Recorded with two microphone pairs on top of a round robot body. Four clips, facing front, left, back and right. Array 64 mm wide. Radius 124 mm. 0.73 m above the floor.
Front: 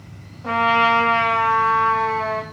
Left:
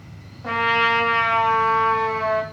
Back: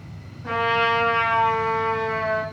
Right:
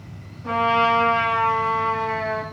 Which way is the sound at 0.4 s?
50° left.